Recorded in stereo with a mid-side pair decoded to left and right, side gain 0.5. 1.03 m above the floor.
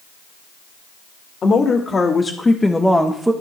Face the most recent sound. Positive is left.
turn(degrees=-20)